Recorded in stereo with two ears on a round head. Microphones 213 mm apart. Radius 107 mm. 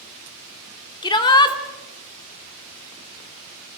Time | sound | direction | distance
1.0 | a shout | 20° left (ahead or behind) | 2 m